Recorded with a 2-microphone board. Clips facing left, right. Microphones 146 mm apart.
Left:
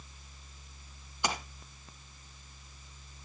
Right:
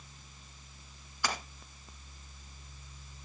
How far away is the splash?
About 2.5 m.